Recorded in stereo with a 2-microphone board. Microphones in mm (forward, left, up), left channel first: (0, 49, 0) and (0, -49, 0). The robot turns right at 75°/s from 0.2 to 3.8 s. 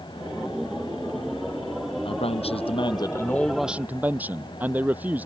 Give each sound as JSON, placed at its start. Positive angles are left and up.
{"t": 2.0, "sound": "a man speaking", "azimuth_deg": 65}